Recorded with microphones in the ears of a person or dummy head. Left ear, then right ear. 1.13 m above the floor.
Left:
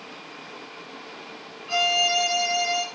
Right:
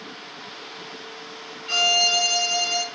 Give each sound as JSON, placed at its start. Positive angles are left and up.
{"t": 1.7, "sound": "a violin", "side_deg": -40, "distance_m": 1.3}